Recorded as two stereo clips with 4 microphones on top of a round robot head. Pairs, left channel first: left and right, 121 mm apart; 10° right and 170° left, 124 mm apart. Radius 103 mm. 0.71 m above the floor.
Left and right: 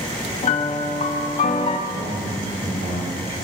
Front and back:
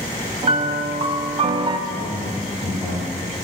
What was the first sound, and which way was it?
A piano, 120° left.